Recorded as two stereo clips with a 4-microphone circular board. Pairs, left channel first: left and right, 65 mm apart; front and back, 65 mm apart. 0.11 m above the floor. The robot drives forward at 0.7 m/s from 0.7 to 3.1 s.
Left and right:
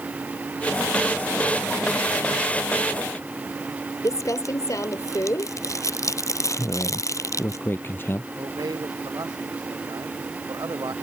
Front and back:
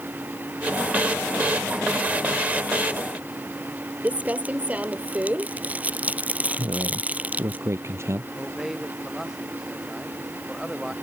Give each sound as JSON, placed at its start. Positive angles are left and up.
{"t": 4.0, "sound": "crumpling", "azimuth_deg": 115}
{"t": 6.6, "sound": "a man speaking", "azimuth_deg": 140}
{"t": 8.4, "sound": "a man speaking", "azimuth_deg": -95}